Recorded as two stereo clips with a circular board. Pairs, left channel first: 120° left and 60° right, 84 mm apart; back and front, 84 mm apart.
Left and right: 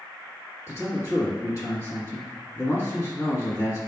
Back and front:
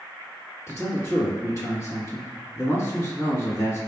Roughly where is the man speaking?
Behind left.